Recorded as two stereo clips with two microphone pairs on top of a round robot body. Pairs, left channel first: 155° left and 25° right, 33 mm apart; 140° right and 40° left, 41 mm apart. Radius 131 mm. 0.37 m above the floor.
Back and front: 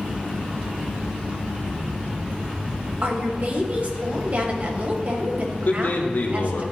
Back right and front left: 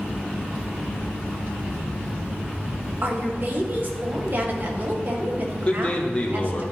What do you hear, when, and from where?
3.0 s a woman speaking: 10° left, 2 m
5.7 s a man speaking: 155° left, 1.5 m